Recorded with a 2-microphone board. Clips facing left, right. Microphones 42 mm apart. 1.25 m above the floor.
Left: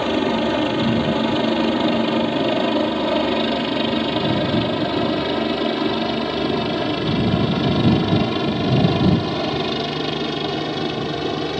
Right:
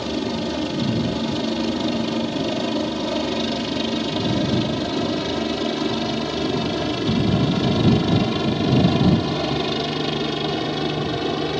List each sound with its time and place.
0.0 s a helicopter: 35° left (ahead or behind); by 11.6 s centre (ahead or behind)